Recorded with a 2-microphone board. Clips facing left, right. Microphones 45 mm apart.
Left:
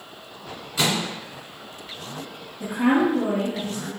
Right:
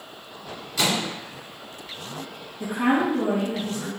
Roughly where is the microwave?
Centre.